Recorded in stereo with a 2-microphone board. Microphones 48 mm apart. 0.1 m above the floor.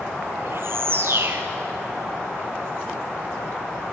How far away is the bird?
About 2 m.